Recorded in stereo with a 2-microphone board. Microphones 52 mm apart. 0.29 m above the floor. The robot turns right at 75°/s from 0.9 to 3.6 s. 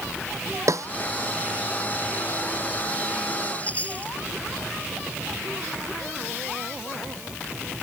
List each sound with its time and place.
0.7 s a snare drum: 75° right (ahead or behind)
3.6 s a chime: 30° left (ahead or behind)